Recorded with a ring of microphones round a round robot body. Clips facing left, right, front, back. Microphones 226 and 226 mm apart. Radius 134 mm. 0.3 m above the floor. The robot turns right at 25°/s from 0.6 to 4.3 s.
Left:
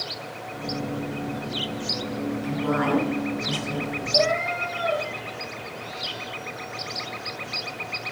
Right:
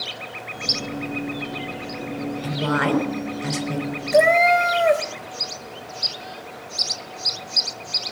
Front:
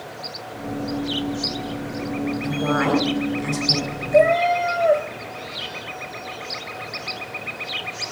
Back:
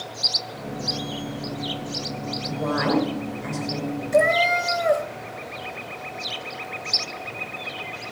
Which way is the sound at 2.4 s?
80° right.